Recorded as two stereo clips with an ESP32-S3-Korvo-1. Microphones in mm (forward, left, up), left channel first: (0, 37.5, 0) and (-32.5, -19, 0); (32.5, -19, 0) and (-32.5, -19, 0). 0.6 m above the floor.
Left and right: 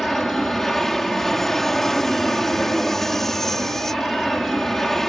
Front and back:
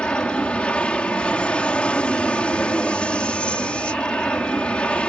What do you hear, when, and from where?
0.0 s an aircraft: 15° right